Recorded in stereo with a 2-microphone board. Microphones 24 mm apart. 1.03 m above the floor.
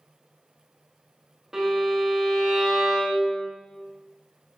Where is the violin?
20° right (ahead or behind), 0.9 m.